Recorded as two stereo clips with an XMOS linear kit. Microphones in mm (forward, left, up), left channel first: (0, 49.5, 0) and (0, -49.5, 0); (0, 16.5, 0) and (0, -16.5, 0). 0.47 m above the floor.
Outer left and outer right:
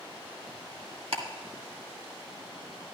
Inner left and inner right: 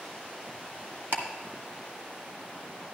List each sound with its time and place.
1.1 s ticking: 80° right, 1.9 m